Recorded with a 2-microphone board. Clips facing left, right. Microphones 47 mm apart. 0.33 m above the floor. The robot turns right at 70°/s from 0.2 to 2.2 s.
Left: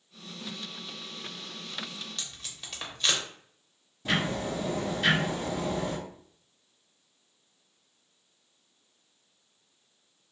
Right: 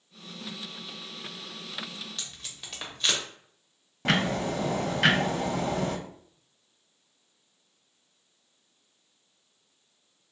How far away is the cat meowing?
I don't hear a cat meowing.